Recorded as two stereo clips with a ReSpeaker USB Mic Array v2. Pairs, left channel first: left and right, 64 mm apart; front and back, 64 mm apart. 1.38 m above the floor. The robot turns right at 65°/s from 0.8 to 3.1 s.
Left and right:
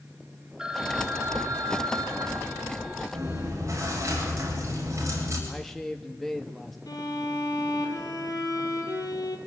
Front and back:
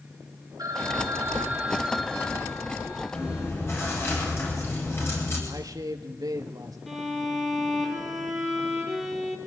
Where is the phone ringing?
170° right, 2.5 m; by 3.5 s 20° right, 2.5 m.